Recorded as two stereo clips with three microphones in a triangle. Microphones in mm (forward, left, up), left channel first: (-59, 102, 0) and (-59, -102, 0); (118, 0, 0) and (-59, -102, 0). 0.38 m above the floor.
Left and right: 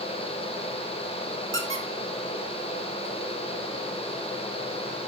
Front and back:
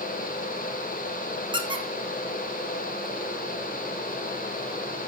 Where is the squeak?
85° right, 1.2 m.